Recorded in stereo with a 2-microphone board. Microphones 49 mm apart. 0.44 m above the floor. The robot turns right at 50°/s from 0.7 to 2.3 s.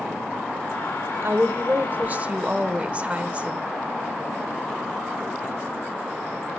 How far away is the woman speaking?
About 1.1 m.